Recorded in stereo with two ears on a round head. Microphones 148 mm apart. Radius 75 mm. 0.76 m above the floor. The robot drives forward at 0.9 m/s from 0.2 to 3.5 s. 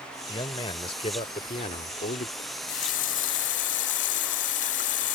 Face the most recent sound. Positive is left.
turn(degrees=85)